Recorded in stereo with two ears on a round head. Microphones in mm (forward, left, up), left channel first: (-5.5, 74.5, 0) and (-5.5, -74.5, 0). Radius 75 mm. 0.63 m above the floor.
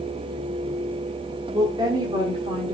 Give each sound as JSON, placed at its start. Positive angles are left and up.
{"t": 1.5, "sound": "a woman speaking", "side_deg": -20, "distance_m": 1.3}